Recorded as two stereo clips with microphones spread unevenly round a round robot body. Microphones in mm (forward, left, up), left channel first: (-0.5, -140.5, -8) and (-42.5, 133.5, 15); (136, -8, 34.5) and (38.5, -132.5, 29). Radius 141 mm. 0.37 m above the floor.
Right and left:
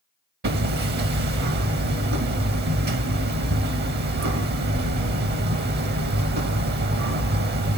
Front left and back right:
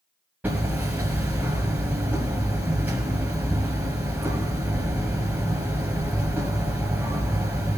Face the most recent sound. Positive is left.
turn(degrees=150)